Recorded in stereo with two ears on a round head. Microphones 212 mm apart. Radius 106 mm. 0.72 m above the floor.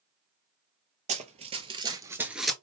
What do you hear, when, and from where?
1.1 s running footsteps: 30° right (ahead or behind), 1.1 m; by 2.5 s centre (ahead or behind), 0.6 m